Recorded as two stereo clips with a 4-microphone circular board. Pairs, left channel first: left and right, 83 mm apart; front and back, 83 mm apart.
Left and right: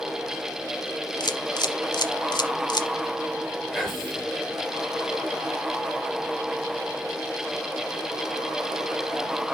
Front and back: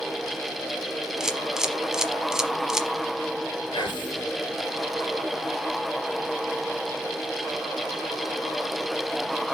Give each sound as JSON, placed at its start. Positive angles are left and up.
{"t": 1.2, "sound": "a camera shutter", "azimuth_deg": 100, "distance_m": 0.9}
{"t": 3.7, "sound": "whispering", "azimuth_deg": 5, "distance_m": 4.0}